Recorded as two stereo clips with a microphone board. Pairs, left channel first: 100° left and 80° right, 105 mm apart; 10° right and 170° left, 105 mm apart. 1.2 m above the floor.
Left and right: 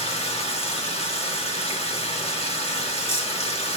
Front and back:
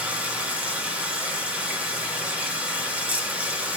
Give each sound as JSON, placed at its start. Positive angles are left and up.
{"t": 0.0, "sound": "running water", "azimuth_deg": 95, "distance_m": 1.6}